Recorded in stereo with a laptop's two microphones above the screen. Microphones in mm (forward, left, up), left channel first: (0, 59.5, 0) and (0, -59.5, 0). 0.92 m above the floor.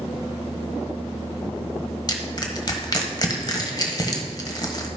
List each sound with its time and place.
2.1 s crushing: 35° left (ahead or behind), 1.3 m